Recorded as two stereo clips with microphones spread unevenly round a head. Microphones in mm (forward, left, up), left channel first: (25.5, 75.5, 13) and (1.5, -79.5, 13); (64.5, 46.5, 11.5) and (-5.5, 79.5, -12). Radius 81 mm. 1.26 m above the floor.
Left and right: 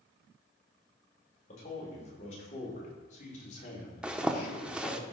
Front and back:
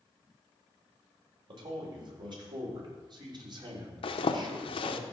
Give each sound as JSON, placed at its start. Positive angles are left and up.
{"t": 1.5, "sound": "a man speaking", "azimuth_deg": 130, "distance_m": 5.0}
{"t": 4.0, "sound": "a zipper", "azimuth_deg": -15, "distance_m": 0.9}